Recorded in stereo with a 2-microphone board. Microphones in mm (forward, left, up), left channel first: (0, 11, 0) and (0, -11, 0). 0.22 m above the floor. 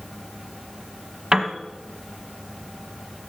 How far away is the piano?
About 1.1 m.